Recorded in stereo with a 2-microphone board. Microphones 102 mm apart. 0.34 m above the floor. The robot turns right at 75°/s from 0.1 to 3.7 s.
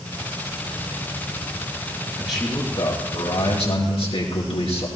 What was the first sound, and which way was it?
A man speaking, 10° right.